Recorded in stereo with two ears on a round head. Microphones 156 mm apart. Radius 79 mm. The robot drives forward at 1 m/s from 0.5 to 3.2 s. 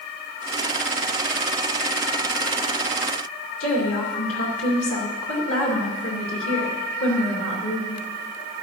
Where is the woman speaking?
85° left, 3 m.